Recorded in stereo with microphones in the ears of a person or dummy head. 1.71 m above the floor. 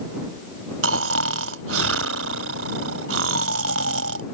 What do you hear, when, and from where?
0.8 s snoring: 70° right (ahead or behind)